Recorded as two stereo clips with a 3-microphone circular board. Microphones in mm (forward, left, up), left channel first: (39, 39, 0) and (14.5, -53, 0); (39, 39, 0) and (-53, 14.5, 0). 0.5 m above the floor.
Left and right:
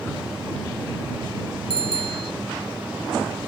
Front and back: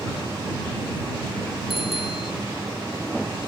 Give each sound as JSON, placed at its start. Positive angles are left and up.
{"t": 1.7, "sound": "a bicycle bell", "azimuth_deg": -80}